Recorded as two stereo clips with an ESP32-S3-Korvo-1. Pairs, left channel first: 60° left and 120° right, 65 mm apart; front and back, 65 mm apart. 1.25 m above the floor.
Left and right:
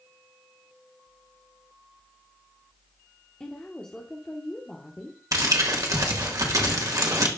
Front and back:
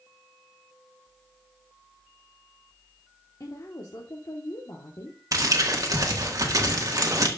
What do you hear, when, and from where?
3.4 s a woman speaking: 15° right, 1.2 m
5.3 s crumpling: 150° right, 1.6 m